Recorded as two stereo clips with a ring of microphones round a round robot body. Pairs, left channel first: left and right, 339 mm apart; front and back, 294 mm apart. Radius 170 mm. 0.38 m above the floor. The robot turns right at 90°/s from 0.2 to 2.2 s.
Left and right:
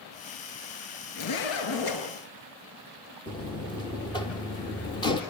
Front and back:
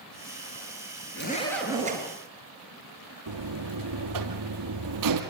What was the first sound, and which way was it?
A zipper, 50° left.